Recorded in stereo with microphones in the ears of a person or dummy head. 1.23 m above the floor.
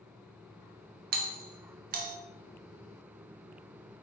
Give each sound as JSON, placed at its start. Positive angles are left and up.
{"t": 1.1, "sound": "a doorbell", "side_deg": -50, "distance_m": 0.8}